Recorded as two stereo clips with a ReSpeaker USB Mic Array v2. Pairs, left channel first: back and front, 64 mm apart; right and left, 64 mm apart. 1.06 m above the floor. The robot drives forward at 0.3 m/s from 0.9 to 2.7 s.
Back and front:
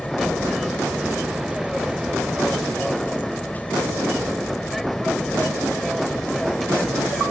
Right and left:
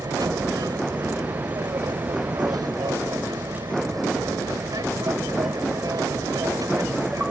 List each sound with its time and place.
0.0 s an aircraft: 90° left